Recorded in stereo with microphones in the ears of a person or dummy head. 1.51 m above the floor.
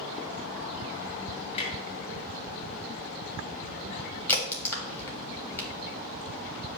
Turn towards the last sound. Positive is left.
turn(degrees=15)  # may be behind; listen again after turning